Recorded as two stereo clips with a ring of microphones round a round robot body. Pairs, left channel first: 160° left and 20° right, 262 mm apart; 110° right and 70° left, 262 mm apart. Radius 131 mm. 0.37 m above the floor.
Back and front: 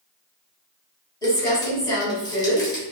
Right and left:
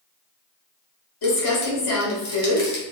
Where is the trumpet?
No trumpet in this recording.